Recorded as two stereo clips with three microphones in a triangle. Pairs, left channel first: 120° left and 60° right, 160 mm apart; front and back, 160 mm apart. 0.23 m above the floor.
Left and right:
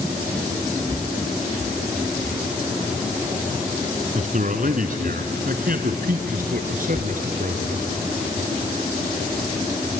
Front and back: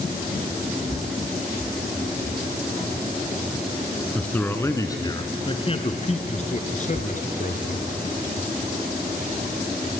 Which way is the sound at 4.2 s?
80° right.